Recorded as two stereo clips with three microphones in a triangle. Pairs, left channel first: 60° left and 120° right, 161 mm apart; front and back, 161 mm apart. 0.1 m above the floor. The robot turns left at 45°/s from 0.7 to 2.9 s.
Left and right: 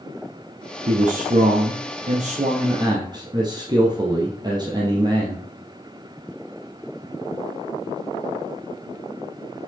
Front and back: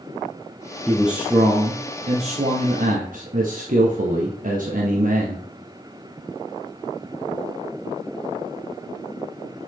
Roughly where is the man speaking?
Right.